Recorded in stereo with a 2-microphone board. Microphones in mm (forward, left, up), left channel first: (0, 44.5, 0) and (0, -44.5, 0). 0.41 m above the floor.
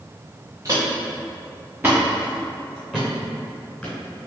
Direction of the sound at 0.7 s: 40° right (ahead or behind).